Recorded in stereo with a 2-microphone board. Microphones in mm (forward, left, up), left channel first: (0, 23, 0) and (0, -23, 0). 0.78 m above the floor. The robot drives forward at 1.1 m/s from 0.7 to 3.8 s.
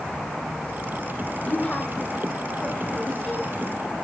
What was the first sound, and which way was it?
A woman speaking, 30° left (ahead or behind).